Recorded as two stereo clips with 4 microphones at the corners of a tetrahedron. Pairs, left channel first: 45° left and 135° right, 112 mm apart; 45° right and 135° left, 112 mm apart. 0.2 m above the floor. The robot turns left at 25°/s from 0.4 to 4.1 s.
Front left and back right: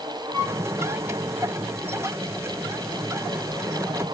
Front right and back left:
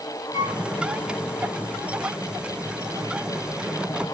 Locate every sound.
0.3 s a flute: 170° right, 2.5 m; by 0.6 s 175° right, 2.5 m